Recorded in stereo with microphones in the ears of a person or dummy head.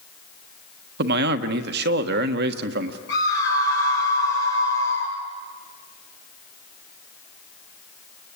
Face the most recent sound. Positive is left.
turn(degrees=70)  # may be behind; listen again after turning